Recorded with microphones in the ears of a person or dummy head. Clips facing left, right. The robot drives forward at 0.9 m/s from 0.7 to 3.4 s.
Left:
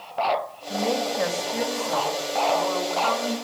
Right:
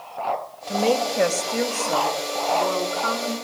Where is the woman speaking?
40° right (ahead or behind), 3 m; by 3.3 s 20° right (ahead or behind), 5 m.